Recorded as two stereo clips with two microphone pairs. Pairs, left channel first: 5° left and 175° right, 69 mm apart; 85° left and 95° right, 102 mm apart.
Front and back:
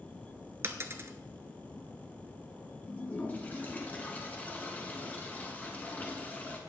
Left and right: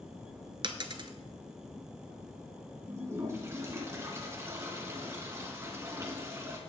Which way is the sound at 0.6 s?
130° right.